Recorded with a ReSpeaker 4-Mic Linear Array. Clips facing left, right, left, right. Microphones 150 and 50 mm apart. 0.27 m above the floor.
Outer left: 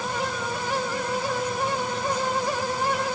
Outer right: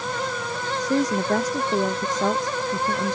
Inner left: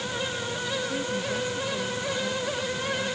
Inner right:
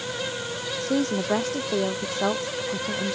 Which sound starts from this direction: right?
A woman speaking, at 0.8 s.